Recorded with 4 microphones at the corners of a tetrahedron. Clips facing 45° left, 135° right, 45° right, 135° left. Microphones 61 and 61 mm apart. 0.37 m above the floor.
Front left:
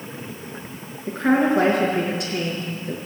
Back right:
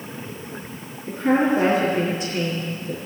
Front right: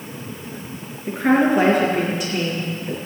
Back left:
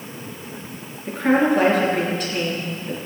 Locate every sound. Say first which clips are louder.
1.1 s a woman speaking: front left 1 dB, front right 1 dB; 35° left, 5 m